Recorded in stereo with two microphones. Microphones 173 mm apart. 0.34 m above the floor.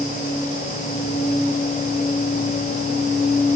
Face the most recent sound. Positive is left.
No sound to turn to.